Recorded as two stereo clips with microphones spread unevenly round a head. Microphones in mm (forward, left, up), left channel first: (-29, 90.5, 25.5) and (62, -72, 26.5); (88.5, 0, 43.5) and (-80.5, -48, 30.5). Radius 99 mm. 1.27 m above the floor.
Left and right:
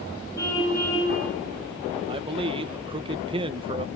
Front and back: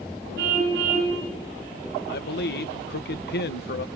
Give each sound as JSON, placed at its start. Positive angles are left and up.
{"t": 0.4, "sound": "a car horn", "azimuth_deg": -170, "distance_m": 9.0}
{"t": 2.1, "sound": "a man speaking", "azimuth_deg": 0, "distance_m": 1.5}